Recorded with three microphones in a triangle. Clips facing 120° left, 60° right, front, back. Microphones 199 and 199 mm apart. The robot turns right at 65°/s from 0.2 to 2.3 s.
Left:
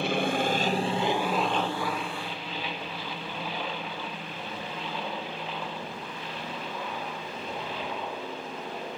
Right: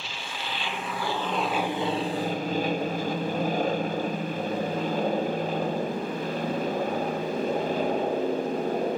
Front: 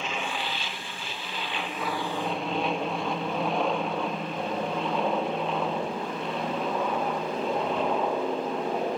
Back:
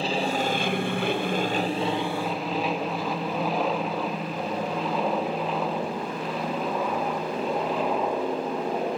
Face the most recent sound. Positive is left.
turn(degrees=-95)